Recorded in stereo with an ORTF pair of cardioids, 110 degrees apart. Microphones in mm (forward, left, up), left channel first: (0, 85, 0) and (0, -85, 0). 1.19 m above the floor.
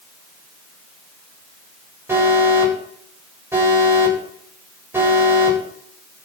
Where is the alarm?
15° right, 9 m.